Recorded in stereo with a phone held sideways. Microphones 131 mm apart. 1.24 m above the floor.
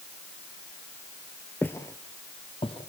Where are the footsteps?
10° left (ahead or behind), 1.2 m; by 2.9 s 45° left (ahead or behind), 2.5 m.